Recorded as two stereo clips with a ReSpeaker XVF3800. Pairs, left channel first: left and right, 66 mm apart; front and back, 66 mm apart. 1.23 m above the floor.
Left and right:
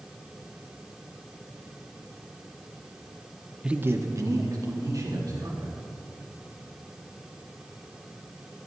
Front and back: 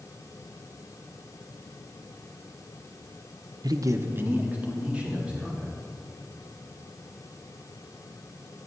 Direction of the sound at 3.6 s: 170° right.